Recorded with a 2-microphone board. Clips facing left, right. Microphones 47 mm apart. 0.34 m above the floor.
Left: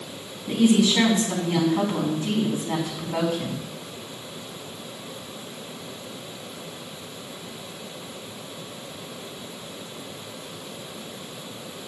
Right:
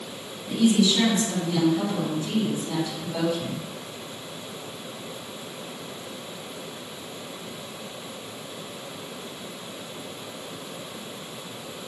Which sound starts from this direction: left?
A woman speaking, at 0.5 s.